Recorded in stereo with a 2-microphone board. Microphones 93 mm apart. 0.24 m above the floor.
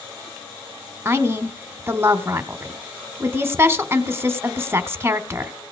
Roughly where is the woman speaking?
Right.